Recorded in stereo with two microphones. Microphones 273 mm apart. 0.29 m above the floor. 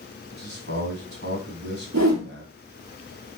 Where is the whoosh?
85° right, 2.5 m.